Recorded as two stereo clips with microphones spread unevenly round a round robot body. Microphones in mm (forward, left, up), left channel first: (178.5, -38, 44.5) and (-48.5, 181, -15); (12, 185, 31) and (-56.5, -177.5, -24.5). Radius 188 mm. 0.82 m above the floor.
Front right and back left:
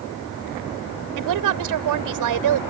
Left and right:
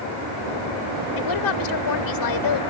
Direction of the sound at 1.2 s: 115° left.